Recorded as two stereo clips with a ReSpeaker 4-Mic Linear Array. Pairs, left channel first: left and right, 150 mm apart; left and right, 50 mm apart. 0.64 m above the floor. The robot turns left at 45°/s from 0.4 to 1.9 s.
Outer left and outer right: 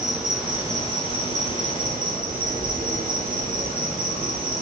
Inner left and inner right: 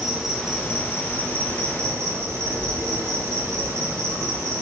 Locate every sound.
0.0 s an insect: 5° right, 0.8 m; by 4.6 s 75° right, 0.8 m